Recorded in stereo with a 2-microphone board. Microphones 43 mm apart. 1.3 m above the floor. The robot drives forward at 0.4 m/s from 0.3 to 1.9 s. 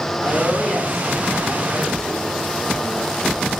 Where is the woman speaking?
5° left (ahead or behind), 5 m.